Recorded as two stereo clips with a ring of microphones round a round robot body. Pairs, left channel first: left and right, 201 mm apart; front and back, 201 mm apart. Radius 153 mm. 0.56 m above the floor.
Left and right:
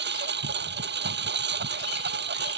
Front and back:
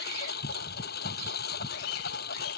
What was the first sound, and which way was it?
A lawn mower, 60° right.